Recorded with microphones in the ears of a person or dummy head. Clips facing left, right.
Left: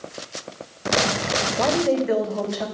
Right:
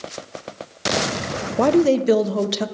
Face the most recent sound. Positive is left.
turn(degrees=-50)  # may be behind; listen again after turning